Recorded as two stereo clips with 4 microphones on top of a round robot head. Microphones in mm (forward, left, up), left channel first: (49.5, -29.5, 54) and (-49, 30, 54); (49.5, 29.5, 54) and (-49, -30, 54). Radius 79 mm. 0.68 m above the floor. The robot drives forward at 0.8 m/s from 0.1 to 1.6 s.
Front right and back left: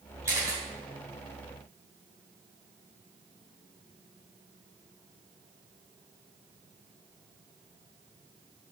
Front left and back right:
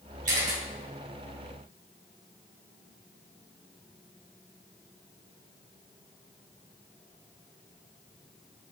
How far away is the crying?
I don't hear crying.